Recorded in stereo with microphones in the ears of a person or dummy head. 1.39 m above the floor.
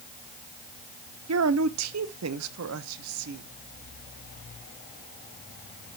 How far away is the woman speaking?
About 0.9 m.